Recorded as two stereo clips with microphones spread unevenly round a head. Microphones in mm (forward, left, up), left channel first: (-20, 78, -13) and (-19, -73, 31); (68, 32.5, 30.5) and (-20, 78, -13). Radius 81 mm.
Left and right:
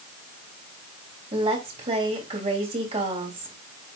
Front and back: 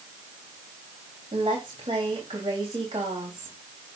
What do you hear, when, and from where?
1.3 s a woman speaking: 140° right, 3 m